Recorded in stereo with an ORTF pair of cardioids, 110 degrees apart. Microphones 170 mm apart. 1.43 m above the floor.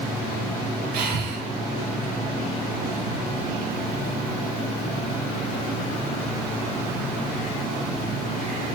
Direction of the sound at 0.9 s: 65° right.